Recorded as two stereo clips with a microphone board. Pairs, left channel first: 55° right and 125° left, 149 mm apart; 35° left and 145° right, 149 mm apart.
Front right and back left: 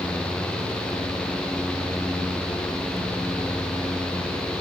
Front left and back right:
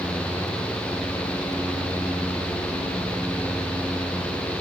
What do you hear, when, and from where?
Only background noise.